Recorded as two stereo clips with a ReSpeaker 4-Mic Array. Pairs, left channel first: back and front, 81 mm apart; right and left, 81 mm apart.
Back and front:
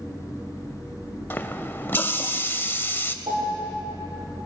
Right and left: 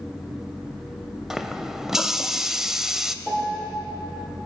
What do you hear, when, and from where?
1.3 s a running tap: 170° left, 0.7 m
3.2 s a piano: straight ahead, 4 m